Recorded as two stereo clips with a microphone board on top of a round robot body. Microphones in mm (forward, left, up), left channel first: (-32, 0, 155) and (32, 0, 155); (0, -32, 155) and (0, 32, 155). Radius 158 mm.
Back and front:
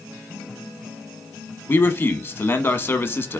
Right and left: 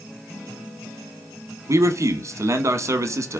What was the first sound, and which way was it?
A man speaking, 130° left.